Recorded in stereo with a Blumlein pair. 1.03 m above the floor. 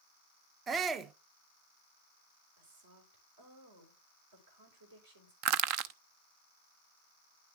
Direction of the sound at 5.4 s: 45° right.